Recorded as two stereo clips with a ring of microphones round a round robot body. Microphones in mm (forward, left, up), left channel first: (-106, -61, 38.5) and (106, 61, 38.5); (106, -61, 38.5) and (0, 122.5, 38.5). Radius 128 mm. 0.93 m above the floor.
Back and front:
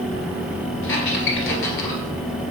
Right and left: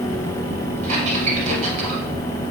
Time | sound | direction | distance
0.8 | a squeak | straight behind | 1.6 m